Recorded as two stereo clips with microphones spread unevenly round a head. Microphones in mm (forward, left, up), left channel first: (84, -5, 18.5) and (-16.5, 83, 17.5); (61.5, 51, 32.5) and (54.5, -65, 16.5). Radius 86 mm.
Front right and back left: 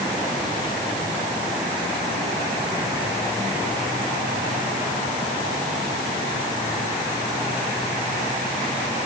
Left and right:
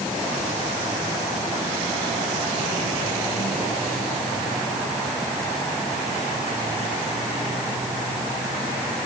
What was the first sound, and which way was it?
Only background noise.